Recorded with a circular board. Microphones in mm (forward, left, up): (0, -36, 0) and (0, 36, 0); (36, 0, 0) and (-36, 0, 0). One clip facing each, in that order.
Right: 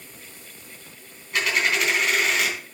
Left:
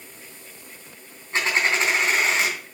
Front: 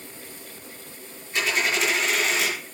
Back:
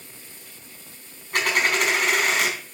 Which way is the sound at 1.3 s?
150° left.